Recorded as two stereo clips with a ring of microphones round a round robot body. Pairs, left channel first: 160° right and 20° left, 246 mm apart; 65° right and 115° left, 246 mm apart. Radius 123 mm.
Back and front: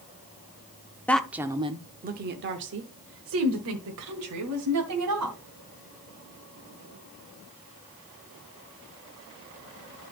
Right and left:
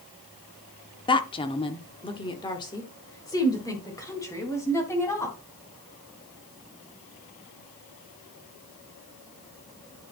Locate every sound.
1.1 s a woman speaking: 85° right, 0.7 m; by 5.4 s 10° left, 2.5 m